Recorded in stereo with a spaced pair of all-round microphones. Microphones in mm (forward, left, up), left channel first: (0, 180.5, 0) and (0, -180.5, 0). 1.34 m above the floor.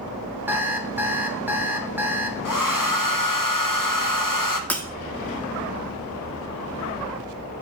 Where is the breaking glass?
5° left (ahead or behind), 0.9 m.